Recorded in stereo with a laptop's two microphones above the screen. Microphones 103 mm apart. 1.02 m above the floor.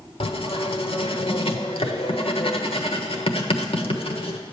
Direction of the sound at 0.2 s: 70° left (ahead or behind).